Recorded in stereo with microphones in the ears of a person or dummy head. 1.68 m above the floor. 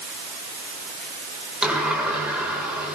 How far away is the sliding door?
About 2.5 m.